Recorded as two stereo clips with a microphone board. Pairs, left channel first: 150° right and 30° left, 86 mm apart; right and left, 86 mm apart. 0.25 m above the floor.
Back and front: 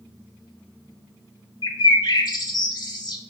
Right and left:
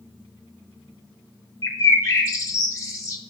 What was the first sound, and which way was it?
A bird, 130° right.